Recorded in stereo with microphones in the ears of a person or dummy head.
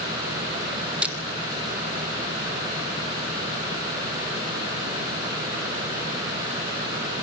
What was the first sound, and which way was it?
Breaking glass, 5° right (ahead or behind).